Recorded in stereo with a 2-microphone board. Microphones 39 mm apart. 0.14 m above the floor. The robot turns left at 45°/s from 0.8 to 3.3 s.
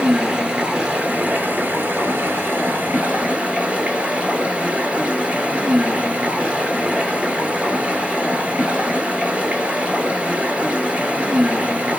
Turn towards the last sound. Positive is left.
turn(degrees=-140)